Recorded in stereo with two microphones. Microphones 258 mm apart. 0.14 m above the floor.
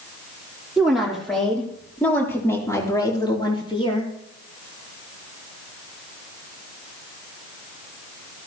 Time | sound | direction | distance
0.8 | a woman speaking | centre (ahead or behind) | 4 m